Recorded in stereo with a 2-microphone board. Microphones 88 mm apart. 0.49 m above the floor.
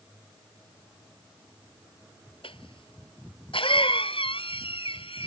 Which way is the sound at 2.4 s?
80° left.